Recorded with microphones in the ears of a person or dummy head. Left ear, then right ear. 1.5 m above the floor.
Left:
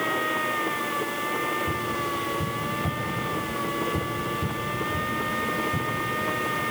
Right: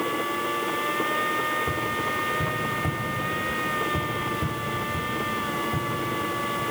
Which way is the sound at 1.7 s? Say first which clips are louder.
Right 1 dB; 20° right (ahead or behind).